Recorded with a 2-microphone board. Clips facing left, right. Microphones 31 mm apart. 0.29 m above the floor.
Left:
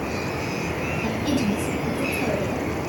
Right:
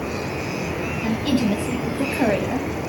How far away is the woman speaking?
About 1.7 m.